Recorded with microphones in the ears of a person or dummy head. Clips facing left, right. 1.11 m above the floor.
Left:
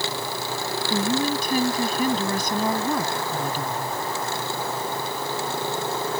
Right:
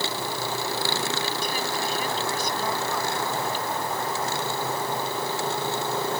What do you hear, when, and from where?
0.9 s a woman speaking: 40° left (ahead or behind)